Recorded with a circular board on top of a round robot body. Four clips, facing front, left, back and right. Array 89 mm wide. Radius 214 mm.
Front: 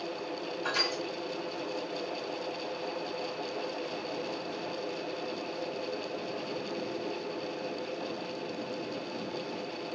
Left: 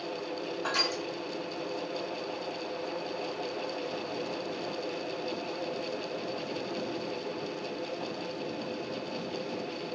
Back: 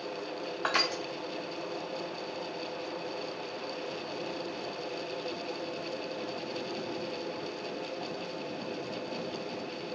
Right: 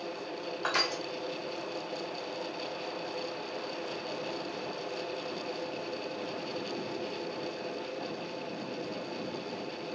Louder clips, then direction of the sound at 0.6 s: Right 2 dB, back 3 dB; 160° right.